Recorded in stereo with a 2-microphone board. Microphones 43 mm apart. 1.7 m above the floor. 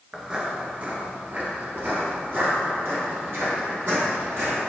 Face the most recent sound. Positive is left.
turn(degrees=-70)  # may be behind; listen again after turning